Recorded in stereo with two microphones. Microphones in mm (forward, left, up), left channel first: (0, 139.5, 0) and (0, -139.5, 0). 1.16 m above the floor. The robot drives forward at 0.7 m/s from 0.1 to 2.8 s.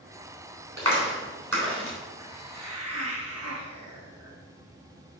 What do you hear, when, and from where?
0.8 s a clap: 60° right (ahead or behind), 3.5 m; by 2.0 s 50° right (ahead or behind), 4 m
2.2 s a hiss: 65° right (ahead or behind), 1.4 m